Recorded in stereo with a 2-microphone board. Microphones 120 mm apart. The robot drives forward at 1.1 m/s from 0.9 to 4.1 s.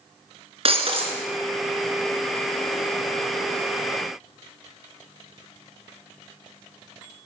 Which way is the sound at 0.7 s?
50° right (ahead or behind).